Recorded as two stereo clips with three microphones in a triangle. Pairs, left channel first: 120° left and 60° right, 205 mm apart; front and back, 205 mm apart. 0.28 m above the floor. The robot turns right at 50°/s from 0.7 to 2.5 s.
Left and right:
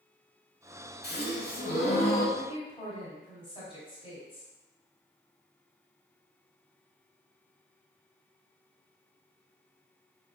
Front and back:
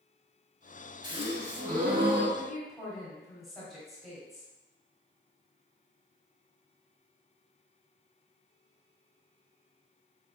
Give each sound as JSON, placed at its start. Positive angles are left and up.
{"t": 1.0, "sound": "a gasp", "azimuth_deg": 120, "distance_m": 0.8}
{"t": 2.4, "sound": "a woman speaking", "azimuth_deg": 85, "distance_m": 1.3}